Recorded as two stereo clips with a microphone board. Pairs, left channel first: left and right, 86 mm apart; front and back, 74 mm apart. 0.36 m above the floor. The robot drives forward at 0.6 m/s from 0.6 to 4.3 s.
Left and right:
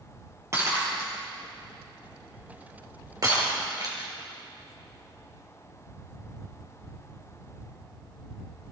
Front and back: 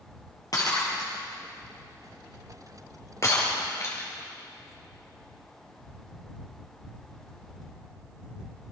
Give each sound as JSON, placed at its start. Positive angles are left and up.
{"t": 0.5, "sound": "breaking glass", "azimuth_deg": -35, "distance_m": 5.5}